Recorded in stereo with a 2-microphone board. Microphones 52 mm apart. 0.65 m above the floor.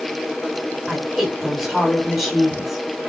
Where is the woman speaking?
5° right (ahead or behind), 3 m.